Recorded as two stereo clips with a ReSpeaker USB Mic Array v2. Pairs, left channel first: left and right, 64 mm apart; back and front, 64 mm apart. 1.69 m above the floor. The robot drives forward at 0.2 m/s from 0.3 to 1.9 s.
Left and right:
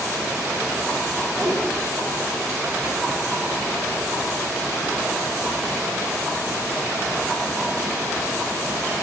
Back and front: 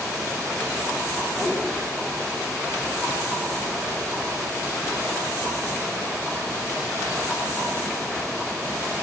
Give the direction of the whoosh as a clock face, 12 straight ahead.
4 o'clock.